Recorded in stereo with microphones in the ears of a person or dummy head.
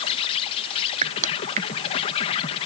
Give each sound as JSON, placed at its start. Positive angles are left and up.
{"t": 0.0, "sound": "an insect", "side_deg": 25}
{"t": 1.0, "sound": "crushing", "side_deg": -40}